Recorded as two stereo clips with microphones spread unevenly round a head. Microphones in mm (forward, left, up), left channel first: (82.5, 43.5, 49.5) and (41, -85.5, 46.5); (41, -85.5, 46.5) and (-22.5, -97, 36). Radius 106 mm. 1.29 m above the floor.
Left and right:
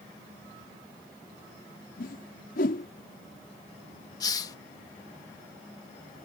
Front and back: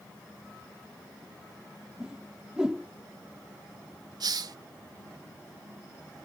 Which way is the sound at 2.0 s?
105° left.